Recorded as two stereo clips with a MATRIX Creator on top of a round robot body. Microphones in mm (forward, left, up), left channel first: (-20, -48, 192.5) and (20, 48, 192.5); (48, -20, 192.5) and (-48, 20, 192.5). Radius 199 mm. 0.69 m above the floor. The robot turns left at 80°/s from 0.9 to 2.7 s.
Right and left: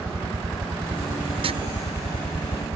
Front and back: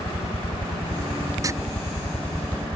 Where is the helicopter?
10° left; by 2.8 s 135° right.